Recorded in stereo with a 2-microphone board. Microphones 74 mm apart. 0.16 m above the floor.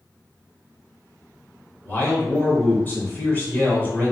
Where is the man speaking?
30° left (ahead or behind), 1.3 m.